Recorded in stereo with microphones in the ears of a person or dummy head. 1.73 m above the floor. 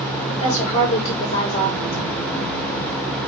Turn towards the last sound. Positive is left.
turn(degrees=40)  # may be behind; listen again after turning